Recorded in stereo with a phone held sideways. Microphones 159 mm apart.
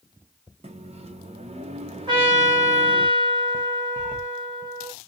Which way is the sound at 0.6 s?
40° right (ahead or behind).